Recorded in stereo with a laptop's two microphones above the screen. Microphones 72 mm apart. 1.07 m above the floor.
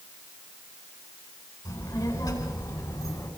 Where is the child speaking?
65° left (ahead or behind), 10 m.